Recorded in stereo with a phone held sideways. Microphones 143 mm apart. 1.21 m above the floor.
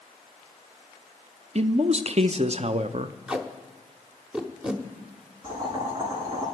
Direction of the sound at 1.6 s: 50° right (ahead or behind).